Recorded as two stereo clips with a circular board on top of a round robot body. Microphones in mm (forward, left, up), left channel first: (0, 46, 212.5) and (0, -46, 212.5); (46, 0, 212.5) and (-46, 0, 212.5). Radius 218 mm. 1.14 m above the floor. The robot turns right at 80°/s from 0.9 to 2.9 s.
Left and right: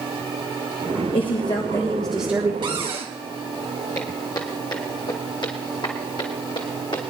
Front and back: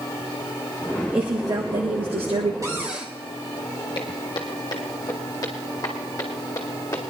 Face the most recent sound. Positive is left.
turn(degrees=60)